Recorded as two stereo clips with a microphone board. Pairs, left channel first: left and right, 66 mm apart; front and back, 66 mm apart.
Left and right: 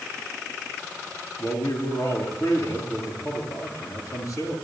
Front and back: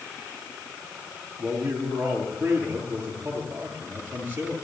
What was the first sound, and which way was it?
A man speaking, 115° left.